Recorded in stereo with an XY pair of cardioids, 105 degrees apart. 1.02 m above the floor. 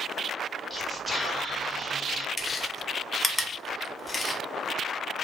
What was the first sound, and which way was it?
Whispering, 10° right.